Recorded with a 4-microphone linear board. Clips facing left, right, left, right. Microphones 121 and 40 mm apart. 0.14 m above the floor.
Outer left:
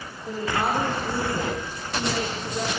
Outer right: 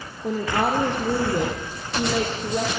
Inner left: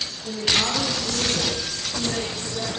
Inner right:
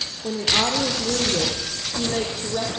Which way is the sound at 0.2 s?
65° right (ahead or behind).